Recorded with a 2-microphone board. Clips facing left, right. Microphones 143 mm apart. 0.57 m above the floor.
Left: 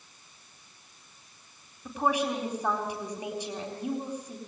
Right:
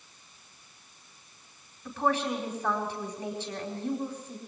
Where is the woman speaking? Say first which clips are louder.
Left 1 dB; 15° left (ahead or behind), 4 m.